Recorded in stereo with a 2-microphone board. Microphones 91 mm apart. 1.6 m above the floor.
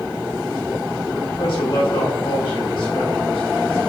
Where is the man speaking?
65° left (ahead or behind), 1.5 m.